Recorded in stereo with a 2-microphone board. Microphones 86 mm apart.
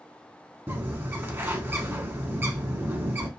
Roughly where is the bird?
Right.